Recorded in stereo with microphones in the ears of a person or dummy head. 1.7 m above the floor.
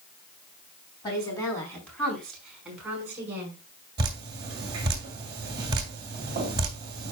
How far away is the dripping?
About 2.5 m.